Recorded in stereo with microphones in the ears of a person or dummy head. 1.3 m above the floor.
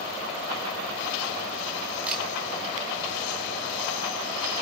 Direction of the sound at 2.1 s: 10° right (ahead or behind).